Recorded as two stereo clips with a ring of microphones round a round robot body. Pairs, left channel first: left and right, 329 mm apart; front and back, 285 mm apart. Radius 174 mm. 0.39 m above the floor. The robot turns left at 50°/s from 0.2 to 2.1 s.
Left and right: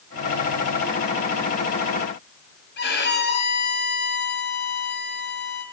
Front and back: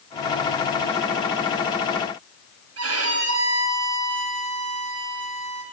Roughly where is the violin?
Behind left.